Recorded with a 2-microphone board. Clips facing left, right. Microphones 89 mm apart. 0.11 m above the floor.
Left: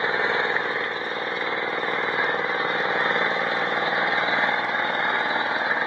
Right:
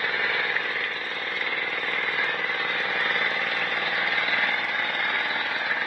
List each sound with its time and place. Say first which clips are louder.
0.0 s an engine running: left 4 dB; 25° left (ahead or behind)